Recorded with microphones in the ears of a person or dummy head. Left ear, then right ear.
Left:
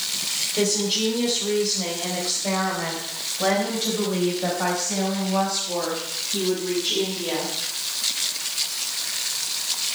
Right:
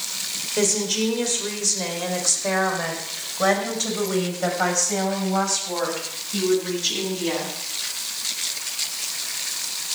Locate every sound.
0.6 s a woman speaking: 40° right (ahead or behind), 4 m; by 7.5 s 75° right (ahead or behind), 8 m